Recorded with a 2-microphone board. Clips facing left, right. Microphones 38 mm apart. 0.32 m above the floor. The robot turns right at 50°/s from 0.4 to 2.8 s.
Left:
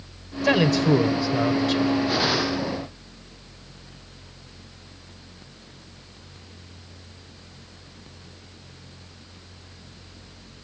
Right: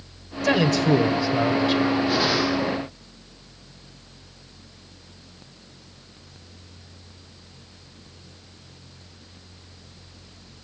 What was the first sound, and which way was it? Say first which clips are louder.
A man speaking: even; 10° left (ahead or behind).